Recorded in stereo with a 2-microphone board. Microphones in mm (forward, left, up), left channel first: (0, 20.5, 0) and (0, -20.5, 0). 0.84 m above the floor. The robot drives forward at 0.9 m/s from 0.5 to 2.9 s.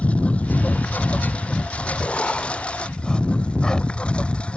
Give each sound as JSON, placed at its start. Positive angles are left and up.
{"t": 0.0, "sound": "a lawn mower", "side_deg": 30}
{"t": 2.0, "sound": "writing", "side_deg": 40}